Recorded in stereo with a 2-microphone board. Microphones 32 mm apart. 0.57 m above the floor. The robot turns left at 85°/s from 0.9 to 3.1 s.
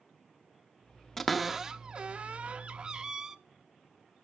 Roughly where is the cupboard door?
Centre.